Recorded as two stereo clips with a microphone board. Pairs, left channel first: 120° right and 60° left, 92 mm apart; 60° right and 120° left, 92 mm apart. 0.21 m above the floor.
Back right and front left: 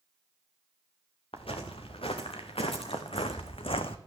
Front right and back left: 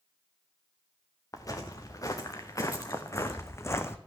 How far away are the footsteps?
About 2 m.